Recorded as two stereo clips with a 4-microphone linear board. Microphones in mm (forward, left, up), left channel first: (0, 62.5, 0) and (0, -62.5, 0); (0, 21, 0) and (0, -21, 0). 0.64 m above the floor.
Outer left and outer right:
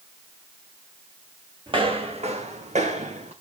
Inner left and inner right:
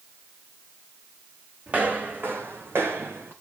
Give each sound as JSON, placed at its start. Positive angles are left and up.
{"t": 1.7, "sound": "footsteps", "side_deg": -40, "distance_m": 1.7}